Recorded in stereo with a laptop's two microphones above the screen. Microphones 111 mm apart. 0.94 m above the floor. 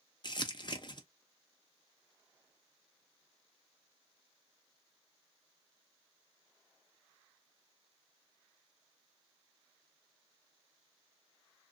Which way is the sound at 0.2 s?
45° left (ahead or behind).